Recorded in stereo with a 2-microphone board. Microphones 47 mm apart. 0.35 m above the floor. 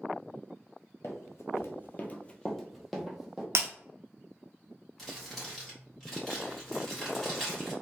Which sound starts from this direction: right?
Breaking glass, at 3.5 s.